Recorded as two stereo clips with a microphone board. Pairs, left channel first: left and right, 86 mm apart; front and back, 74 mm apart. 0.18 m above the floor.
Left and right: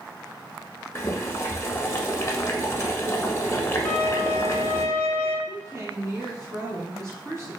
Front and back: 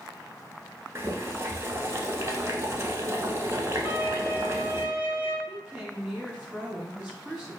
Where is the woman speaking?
95° right, 2.0 m.